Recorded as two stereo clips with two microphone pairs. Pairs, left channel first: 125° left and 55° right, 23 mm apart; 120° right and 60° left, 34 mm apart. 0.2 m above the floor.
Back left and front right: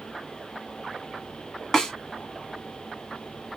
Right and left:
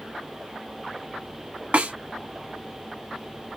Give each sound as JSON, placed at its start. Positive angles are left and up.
{"t": 1.7, "sound": "a snare drum", "azimuth_deg": 70, "distance_m": 1.2}